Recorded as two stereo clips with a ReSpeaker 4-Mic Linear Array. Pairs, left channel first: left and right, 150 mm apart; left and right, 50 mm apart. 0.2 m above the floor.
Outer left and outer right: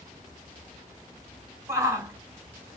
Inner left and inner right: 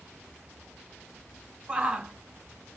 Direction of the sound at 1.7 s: 20° right (ahead or behind).